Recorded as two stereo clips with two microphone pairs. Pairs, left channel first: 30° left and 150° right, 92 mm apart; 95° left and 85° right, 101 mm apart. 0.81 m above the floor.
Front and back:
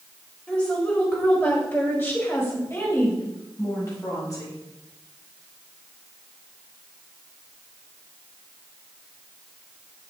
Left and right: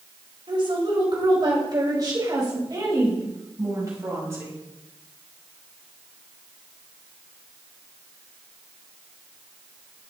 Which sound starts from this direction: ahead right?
A woman speaking, at 0.5 s.